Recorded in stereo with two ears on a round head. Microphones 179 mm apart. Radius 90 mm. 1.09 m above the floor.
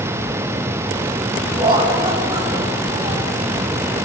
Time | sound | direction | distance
1.6 | laughter | 25° right (ahead or behind) | 8.5 m